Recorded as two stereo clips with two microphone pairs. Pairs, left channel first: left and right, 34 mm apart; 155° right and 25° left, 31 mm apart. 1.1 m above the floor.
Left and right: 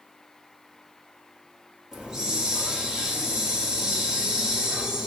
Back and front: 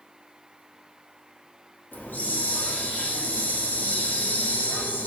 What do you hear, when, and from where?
1.9 s a hiss: 160° right, 1.8 m